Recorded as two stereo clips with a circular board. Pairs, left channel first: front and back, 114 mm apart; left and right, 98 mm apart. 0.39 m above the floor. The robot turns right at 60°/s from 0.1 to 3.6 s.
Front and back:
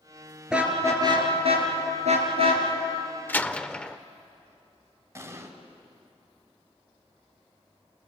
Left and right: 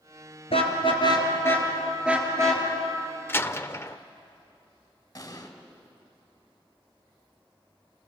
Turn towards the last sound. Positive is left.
turn(degrees=130)